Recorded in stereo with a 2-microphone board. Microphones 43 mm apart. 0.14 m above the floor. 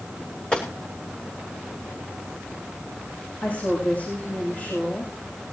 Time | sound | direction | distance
0.5 | a gunshot | 20° left (ahead or behind) | 4.5 m
3.4 | a woman speaking | 35° left (ahead or behind) | 6.5 m